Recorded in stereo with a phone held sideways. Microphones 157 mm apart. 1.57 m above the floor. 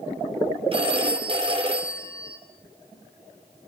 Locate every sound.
0.7 s a phone ringing: 35° right (ahead or behind), 3.5 m